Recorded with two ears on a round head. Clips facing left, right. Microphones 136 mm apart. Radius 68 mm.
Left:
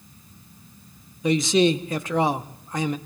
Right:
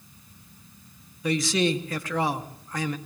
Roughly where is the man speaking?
Centre.